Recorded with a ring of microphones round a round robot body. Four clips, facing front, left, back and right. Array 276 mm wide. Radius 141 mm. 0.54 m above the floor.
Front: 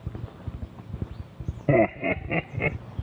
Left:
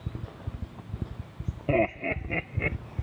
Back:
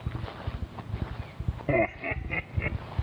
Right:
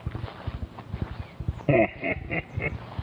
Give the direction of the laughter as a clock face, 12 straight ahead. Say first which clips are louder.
Right 3 dB, front 6 dB; 1 o'clock.